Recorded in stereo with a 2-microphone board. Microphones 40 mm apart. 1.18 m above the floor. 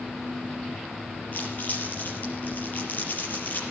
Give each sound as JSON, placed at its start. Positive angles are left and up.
{"t": 1.3, "sound": "crumpling", "side_deg": 50, "distance_m": 5.0}